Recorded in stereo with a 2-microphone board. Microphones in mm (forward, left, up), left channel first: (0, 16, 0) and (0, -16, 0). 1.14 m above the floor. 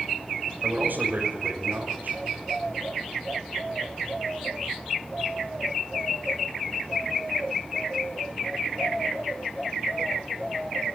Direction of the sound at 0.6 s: 70° right (ahead or behind).